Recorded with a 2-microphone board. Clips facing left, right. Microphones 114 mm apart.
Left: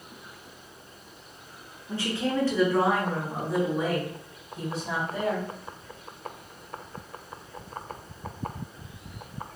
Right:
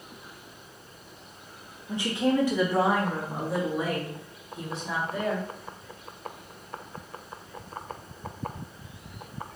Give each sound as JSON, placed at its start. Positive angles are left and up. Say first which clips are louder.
{"t": 1.9, "sound": "a woman speaking", "louder": "right 3 dB", "side_deg": -20, "distance_m": 0.9}